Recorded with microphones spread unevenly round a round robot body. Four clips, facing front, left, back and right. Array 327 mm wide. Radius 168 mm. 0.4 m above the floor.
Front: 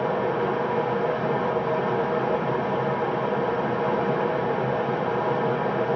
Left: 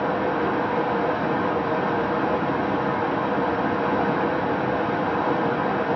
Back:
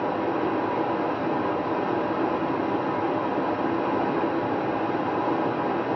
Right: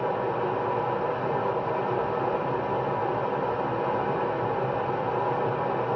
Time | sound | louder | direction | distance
0.0 | running water | left 4 dB, front 1 dB | 70° left | 1.5 m